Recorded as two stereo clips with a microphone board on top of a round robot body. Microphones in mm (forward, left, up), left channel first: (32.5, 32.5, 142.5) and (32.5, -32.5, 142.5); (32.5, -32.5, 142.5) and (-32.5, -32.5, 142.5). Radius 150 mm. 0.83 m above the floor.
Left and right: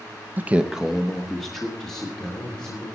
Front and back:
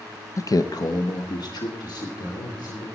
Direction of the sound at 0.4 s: 30° right.